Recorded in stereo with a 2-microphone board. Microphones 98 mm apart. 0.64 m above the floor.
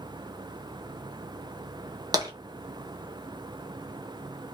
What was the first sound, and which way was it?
Tapping, 40° right (ahead or behind).